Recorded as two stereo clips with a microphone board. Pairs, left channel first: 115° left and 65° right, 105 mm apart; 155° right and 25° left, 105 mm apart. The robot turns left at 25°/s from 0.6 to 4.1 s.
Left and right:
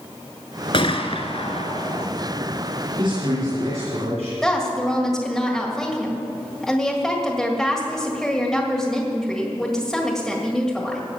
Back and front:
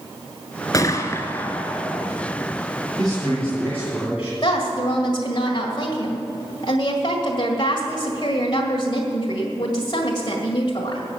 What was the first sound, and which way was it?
A gunshot, 145° left.